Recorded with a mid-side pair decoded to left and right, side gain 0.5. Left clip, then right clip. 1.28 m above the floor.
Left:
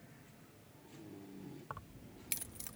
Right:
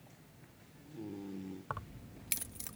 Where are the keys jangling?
40° right; by 2.8 s 15° right.